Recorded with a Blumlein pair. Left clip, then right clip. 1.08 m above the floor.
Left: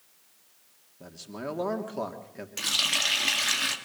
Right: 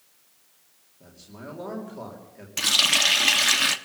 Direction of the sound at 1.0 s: 70° left.